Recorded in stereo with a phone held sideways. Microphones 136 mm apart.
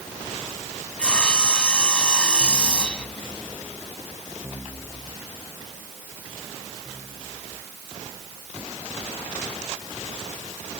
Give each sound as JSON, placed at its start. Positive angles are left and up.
{"t": 1.0, "sound": "sawing", "side_deg": 5}